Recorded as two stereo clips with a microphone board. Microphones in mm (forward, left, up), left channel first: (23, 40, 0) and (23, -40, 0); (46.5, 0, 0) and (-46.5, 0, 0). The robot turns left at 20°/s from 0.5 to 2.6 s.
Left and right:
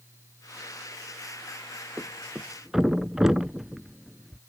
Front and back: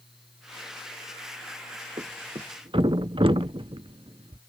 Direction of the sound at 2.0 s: 160° right.